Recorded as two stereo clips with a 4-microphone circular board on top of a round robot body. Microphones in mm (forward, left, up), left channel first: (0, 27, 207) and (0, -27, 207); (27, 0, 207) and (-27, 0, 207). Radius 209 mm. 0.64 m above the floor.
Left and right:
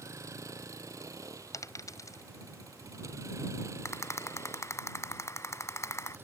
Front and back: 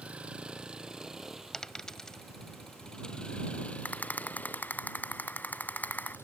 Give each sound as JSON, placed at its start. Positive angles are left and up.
{"t": 0.0, "sound": "a vehicle", "azimuth_deg": -110}
{"t": 1.5, "sound": "a dropped coin", "azimuth_deg": 80}
{"t": 3.9, "sound": "a rattle", "azimuth_deg": 60}